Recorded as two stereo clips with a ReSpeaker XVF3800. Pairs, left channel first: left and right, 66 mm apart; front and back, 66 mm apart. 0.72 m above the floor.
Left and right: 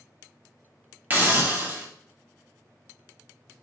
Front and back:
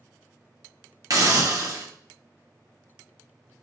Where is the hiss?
150° right, 0.9 m.